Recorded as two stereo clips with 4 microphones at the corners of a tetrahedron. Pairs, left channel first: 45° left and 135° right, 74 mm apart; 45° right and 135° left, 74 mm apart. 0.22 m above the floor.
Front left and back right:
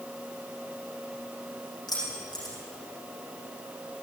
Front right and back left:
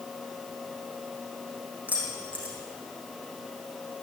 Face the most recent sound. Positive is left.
turn(degrees=65)